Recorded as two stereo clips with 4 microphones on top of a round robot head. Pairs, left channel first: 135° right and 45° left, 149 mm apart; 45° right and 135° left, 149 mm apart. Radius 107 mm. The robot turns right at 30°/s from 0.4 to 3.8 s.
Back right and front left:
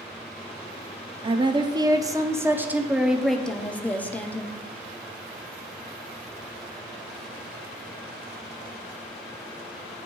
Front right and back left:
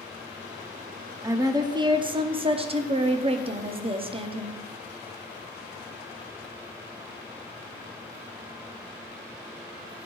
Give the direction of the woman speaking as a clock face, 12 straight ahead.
9 o'clock.